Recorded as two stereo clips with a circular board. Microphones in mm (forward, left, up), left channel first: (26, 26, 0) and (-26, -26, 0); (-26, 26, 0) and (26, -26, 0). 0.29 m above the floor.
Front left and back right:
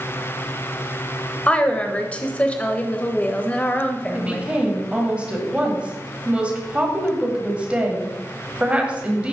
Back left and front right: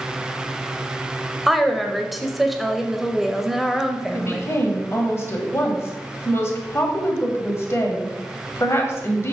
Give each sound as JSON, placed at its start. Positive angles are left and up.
{"t": 1.5, "sound": "a woman speaking", "azimuth_deg": 40, "distance_m": 0.9}
{"t": 4.1, "sound": "a woman speaking", "azimuth_deg": 160, "distance_m": 1.7}